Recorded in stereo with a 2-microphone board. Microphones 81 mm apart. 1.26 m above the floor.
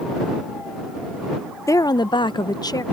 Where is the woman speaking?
40° left (ahead or behind); by 2.8 s 50° left (ahead or behind).